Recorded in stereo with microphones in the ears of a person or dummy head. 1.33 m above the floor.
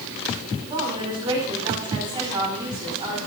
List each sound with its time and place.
0.7 s a woman speaking: 30° right (ahead or behind), 5.5 m